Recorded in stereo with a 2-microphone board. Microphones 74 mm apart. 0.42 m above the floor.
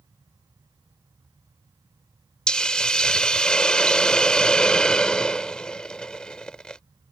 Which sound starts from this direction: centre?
A hiss, at 2.5 s.